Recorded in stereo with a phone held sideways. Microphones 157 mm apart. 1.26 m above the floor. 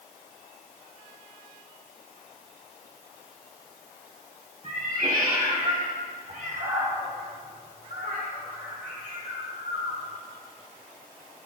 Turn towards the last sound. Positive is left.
turn(degrees=-60)  # may be behind; listen again after turning